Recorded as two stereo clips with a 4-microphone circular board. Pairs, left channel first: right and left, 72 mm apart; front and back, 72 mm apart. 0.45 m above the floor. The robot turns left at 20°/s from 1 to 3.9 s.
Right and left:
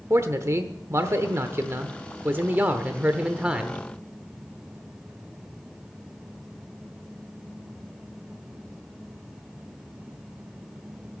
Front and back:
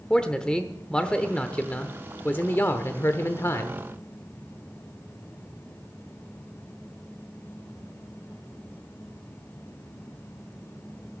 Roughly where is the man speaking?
Left.